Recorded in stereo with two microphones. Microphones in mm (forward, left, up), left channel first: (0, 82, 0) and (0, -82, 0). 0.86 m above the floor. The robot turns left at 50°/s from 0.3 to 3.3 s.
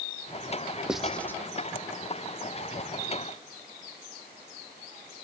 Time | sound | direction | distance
0.9 | writing | 5° right (ahead or behind) | 0.8 m